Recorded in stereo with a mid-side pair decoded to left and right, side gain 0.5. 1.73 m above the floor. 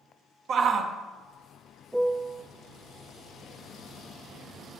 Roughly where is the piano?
Ahead.